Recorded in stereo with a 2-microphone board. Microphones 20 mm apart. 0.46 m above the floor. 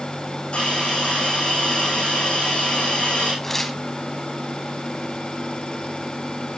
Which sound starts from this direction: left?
A hiss, at 0.5 s.